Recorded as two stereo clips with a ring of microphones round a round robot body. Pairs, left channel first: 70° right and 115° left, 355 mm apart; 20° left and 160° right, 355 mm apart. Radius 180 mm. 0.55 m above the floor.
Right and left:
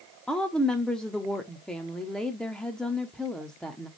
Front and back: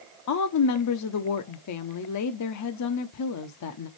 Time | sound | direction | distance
0.3 | a woman speaking | 20° left | 0.8 m